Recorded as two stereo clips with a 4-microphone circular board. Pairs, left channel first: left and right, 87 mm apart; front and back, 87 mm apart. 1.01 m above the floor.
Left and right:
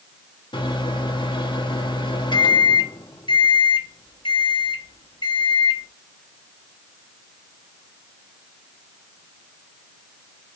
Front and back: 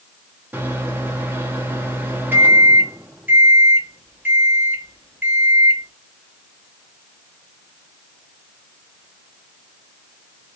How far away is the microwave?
About 1.3 m.